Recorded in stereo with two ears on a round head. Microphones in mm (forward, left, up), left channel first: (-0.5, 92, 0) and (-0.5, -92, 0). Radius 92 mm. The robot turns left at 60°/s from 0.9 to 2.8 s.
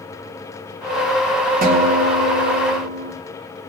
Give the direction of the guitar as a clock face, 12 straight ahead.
1 o'clock.